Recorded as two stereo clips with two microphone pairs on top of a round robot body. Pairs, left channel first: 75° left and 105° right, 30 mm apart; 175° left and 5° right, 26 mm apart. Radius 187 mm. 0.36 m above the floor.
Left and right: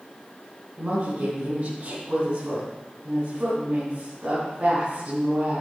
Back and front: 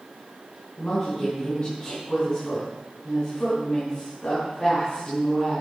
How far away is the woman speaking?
About 6.5 m.